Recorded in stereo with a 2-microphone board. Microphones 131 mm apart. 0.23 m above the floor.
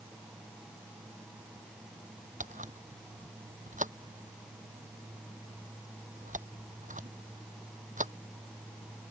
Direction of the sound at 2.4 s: 75° right (ahead or behind).